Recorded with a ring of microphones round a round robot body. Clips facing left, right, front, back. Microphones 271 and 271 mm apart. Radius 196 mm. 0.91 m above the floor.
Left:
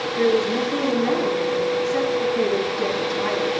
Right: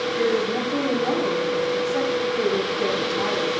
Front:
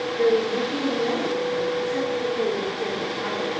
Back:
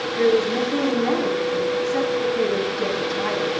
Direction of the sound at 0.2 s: 155° left.